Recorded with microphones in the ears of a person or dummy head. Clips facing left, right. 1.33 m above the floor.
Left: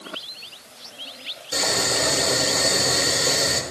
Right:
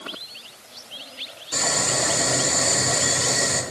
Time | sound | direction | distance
1.5 | boiling | 55° left (ahead or behind) | 5.5 m